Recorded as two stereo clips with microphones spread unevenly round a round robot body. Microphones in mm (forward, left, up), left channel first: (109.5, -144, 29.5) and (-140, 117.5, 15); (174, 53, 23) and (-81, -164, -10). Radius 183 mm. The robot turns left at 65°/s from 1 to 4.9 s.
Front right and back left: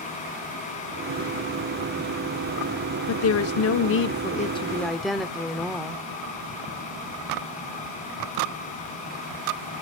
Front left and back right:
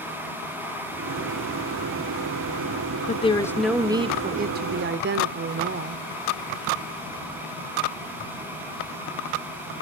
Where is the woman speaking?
20° right, 0.9 m; by 6.0 s 140° right, 0.9 m.